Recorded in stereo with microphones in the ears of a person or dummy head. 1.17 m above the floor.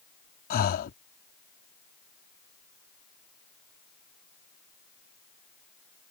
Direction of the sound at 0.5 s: 45° left (ahead or behind).